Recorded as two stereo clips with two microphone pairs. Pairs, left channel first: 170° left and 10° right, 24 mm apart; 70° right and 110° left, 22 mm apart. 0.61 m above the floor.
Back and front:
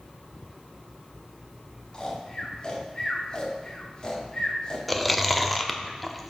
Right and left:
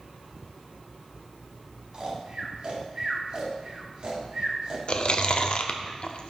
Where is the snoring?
125° left, 1.6 m.